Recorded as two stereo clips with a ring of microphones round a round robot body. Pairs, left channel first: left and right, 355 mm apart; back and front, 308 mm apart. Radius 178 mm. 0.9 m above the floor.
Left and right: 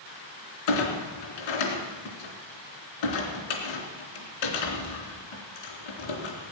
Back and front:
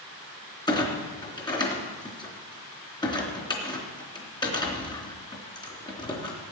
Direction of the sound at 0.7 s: 105° left.